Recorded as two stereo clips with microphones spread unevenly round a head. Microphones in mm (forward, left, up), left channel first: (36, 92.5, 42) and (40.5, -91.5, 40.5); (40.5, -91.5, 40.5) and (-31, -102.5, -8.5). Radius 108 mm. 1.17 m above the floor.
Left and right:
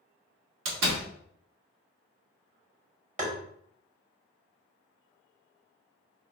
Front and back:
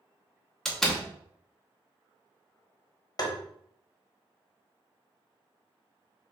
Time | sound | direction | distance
0.7 | a door slam | 80° right | 1.1 m
3.2 | tapping | 40° right | 1.2 m